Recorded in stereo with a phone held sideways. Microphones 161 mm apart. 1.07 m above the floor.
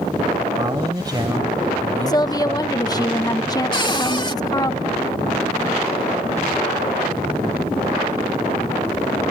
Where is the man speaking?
25° right (ahead or behind).